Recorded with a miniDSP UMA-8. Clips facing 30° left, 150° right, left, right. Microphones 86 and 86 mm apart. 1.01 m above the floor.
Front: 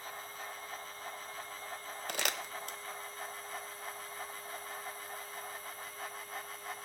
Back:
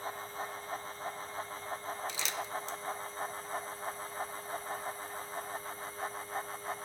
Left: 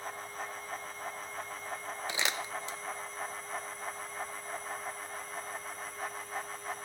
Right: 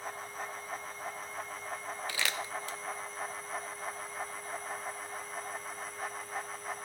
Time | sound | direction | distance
2.1 | crumpling | 25° left | 0.6 m